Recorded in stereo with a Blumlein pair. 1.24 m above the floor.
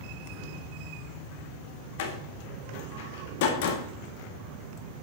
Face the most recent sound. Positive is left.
turn(degrees=50)